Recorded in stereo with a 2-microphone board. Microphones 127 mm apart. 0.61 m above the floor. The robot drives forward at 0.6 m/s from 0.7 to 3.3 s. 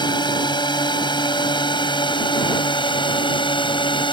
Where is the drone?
35° left (ahead or behind); by 4.1 s 40° left (ahead or behind).